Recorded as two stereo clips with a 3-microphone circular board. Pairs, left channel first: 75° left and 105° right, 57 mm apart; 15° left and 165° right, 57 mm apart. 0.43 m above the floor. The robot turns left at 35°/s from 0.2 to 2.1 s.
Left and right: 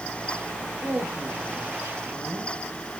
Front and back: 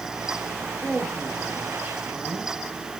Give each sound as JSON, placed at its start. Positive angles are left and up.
{"t": 0.8, "sound": "a woman speaking", "azimuth_deg": -60, "distance_m": 2.5}